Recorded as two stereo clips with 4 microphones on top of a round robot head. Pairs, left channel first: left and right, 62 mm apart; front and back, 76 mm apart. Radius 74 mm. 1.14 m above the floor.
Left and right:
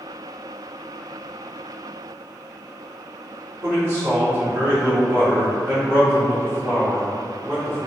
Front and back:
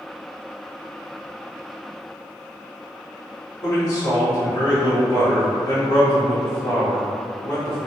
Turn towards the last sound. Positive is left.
turn(degrees=-35)